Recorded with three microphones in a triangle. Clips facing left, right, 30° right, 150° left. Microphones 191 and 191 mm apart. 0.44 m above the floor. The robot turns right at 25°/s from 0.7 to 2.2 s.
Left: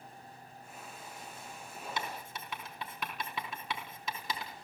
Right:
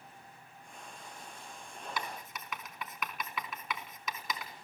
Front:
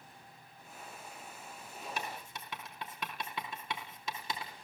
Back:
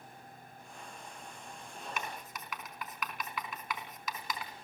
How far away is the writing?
About 3.5 m.